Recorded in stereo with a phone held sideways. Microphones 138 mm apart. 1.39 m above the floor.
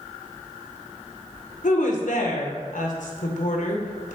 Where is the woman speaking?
85° left, 1.0 m.